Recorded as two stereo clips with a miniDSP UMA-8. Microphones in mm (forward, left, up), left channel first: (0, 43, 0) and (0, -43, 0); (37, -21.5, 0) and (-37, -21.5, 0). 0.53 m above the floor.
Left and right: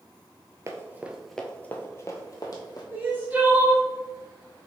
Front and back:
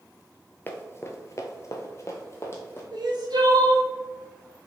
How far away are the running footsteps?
About 0.6 m.